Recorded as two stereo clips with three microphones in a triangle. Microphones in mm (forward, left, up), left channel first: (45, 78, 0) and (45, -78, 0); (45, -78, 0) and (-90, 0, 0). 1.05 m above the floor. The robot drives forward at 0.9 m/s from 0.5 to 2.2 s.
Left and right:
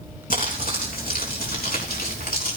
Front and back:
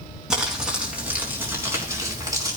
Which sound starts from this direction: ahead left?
Crumpling, at 0.3 s.